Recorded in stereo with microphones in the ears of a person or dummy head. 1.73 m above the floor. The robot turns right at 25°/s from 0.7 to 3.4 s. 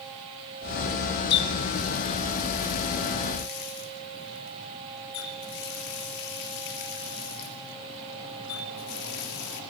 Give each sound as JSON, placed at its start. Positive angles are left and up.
{"t": 1.3, "sound": "a running tap", "azimuth_deg": 60, "distance_m": 3.0}